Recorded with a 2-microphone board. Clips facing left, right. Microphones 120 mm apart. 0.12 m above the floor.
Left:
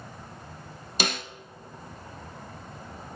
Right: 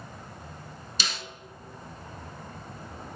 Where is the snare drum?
55° left (ahead or behind), 0.5 m.